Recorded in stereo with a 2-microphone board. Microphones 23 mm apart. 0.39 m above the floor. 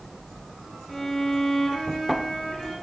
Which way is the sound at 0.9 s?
10° left (ahead or behind).